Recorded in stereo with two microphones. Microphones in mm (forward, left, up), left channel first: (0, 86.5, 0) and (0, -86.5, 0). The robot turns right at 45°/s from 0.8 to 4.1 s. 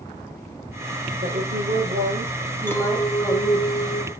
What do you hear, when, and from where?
1.2 s a woman speaking: 85° right, 4 m; by 3.7 s 25° left, 4 m
2.7 s a clink: 15° left, 1.6 m; by 4.1 s 80° left, 1.6 m